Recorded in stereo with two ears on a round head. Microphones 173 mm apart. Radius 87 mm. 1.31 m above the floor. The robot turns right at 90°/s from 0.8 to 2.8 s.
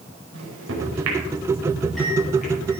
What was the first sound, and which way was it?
A microwave, 75° right (ahead or behind).